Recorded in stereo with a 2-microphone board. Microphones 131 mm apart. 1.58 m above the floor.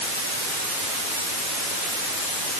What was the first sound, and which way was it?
Only background noise.